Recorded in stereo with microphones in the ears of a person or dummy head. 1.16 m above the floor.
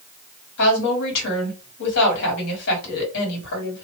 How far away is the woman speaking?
About 2 m.